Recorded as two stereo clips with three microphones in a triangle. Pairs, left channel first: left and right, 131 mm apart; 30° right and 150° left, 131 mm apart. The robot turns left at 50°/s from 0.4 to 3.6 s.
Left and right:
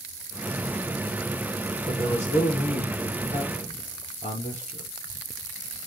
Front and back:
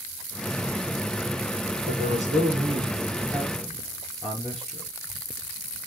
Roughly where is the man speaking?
Behind left.